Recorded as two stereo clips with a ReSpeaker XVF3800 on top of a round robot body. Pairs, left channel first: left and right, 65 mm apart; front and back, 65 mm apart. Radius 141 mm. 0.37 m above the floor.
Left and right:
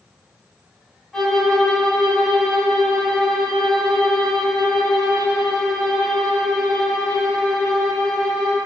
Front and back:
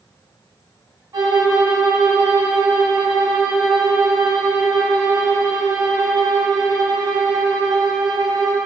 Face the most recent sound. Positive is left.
turn(degrees=175)